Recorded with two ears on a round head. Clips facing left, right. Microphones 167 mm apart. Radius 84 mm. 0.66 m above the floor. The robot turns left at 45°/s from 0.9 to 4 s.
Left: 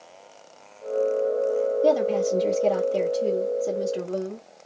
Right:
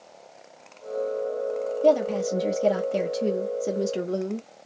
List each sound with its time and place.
1.8 s a woman speaking: 10° left, 0.9 m; by 4.5 s 85° right, 0.9 m